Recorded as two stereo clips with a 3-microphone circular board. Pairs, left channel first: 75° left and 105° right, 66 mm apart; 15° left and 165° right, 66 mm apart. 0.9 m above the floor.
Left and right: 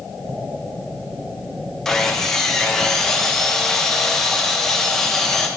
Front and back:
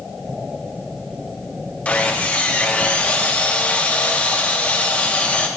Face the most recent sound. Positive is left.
turn(degrees=5)